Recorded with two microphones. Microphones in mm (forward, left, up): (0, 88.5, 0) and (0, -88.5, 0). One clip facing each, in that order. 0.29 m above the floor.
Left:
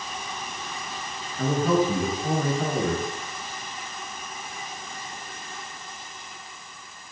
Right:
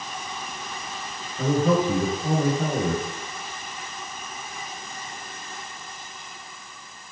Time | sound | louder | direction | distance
1.4 | a man speaking | right 1 dB | 15° right (ahead or behind) | 4 m